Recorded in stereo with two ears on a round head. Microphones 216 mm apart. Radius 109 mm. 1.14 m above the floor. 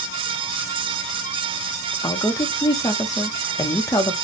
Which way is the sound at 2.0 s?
15° left (ahead or behind).